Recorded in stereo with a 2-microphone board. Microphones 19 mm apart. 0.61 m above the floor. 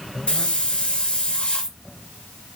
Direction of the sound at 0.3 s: 70° left (ahead or behind).